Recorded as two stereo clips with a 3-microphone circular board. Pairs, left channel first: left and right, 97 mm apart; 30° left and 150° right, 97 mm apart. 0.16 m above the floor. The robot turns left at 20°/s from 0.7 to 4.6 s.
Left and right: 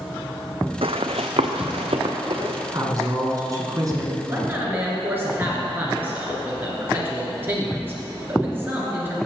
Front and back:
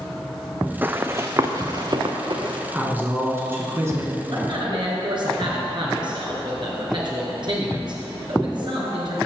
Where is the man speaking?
150° right, 2 m; by 9.2 s 155° right, 2 m.